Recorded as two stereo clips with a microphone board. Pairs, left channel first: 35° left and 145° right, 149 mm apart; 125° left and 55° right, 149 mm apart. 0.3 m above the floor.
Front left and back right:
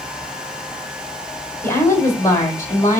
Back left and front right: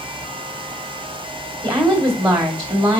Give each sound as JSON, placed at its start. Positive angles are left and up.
{"t": 1.6, "sound": "a woman speaking", "azimuth_deg": -15, "distance_m": 1.6}